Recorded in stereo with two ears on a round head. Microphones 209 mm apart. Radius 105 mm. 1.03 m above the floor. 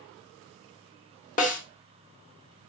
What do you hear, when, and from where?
1.4 s a snare drum: 35° left (ahead or behind), 0.9 m